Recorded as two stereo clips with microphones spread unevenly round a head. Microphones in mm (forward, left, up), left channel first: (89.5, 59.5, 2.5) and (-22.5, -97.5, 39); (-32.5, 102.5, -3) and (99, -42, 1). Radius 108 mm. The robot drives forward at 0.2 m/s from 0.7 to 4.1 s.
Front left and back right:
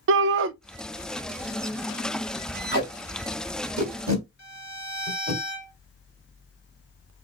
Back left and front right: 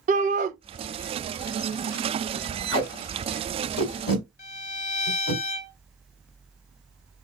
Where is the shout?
100° right, 0.5 m.